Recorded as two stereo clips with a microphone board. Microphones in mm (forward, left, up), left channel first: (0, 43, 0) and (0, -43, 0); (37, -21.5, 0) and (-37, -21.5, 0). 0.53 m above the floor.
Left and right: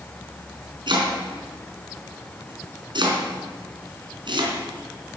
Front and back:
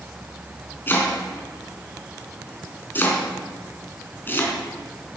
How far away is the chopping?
About 3 m.